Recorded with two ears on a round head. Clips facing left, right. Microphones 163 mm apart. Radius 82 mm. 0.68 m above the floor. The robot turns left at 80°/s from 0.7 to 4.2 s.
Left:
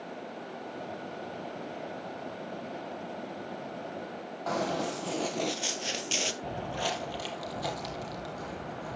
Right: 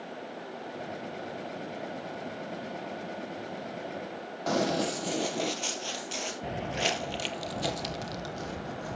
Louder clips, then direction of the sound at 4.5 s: Right 3 dB; 30° right (ahead or behind).